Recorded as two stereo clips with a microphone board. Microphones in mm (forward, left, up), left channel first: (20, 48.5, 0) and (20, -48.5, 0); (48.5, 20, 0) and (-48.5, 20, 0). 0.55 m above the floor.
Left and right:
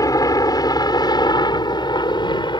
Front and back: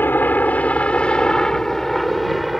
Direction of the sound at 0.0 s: 60° left.